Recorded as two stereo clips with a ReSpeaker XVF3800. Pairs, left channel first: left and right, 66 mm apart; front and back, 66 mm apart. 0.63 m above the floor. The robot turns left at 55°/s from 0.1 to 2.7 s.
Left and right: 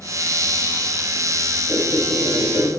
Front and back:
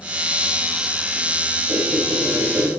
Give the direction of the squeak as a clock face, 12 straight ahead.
6 o'clock.